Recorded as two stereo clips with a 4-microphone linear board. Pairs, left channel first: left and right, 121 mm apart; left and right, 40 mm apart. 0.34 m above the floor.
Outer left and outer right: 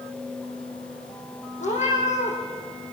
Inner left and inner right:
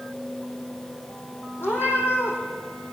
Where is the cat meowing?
80° left, 4 m.